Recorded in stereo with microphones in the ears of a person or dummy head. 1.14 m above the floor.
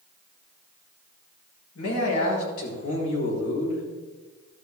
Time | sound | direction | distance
1.8 | a man speaking | 80° left | 4.5 m